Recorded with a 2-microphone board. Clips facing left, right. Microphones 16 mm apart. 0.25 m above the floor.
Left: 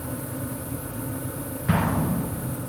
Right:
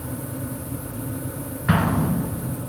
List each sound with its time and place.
1.7 s an explosion: 45° right (ahead or behind), 2.5 m